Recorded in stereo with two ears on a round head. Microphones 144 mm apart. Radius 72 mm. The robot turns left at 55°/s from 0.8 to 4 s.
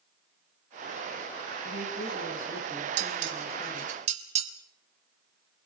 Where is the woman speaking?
90° left, 9 m; by 4.0 s 35° right, 9 m.